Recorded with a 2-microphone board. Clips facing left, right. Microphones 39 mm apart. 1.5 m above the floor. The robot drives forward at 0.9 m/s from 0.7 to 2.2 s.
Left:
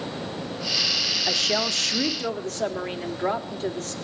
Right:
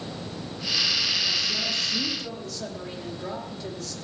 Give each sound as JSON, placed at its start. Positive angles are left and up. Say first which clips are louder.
{"t": 1.3, "sound": "a woman speaking", "louder": "left 3 dB", "side_deg": 70, "distance_m": 0.7}